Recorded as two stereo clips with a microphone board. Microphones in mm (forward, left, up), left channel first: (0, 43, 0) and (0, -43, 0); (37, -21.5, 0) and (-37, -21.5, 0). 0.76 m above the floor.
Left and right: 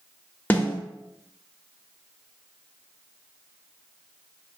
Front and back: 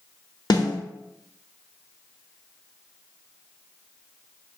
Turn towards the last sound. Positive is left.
turn(degrees=20)